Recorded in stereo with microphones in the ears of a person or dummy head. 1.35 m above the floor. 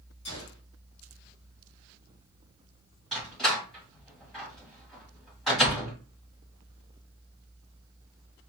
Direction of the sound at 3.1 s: 5° left (ahead or behind).